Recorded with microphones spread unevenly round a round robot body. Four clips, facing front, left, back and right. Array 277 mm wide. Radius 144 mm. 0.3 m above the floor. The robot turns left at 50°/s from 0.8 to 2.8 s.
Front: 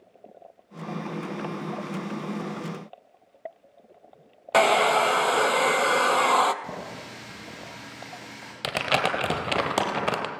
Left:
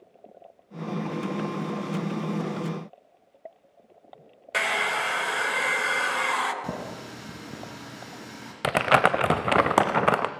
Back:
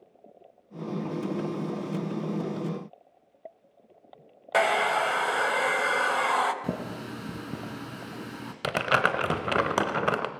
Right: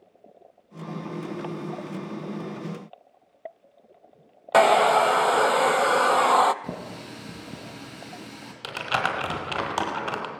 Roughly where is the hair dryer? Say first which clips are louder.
Right 11 dB, front 4 dB; ahead right.